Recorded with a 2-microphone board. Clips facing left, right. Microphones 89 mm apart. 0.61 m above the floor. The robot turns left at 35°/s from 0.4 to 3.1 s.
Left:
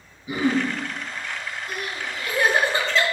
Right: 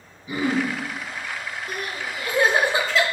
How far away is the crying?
About 1.0 m.